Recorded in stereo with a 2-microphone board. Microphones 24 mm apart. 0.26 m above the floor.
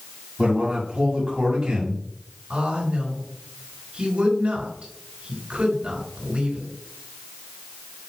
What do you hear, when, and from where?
0.4 s a man speaking: 45° right (ahead or behind), 2 m
2.5 s a woman speaking: 60° right (ahead or behind), 3.5 m